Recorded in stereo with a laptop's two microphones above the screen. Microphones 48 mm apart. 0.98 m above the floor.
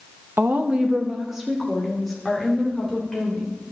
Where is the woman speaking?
50° right (ahead or behind), 0.8 m; by 3.5 s 10° left (ahead or behind), 4 m.